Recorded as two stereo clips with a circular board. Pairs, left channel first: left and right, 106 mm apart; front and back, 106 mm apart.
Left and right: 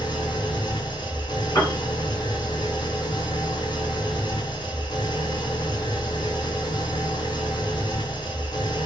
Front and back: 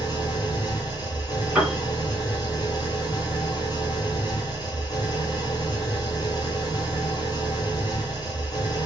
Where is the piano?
105° left, 1.6 m.